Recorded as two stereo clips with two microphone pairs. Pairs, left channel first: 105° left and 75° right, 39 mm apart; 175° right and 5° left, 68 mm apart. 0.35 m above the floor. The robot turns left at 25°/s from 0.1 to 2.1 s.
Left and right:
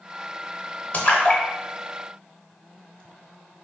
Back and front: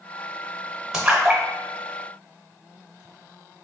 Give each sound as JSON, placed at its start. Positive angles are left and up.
{"t": 0.9, "sound": "a splash", "azimuth_deg": 90, "distance_m": 0.8}